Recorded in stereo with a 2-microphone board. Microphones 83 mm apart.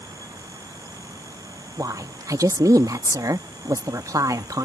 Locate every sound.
1.8 s a woman speaking: 45° right (ahead or behind)